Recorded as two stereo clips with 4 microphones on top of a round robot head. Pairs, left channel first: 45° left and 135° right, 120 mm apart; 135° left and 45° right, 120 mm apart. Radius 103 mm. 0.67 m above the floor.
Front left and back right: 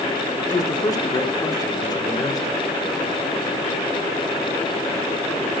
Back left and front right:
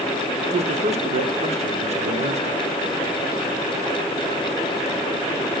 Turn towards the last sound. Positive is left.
turn(degrees=-15)